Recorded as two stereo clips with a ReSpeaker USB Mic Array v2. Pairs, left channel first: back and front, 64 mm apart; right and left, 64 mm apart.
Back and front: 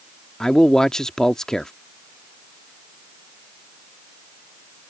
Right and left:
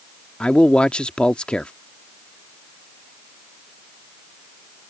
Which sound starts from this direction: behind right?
A man speaking, at 0.4 s.